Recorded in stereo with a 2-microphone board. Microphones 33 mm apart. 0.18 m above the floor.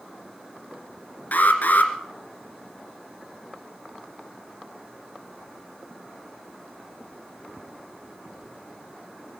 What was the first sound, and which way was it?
An alarm, 60° left (ahead or behind).